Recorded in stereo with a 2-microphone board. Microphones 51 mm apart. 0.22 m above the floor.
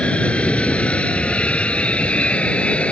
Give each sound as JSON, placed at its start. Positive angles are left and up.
{"t": 0.0, "sound": "an aircraft", "side_deg": 25}